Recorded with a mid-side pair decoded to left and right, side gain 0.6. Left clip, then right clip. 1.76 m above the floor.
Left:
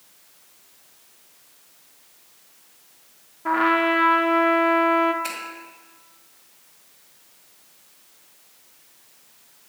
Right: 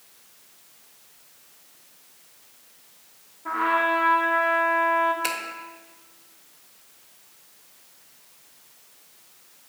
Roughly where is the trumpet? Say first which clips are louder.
Left 3 dB; ahead left.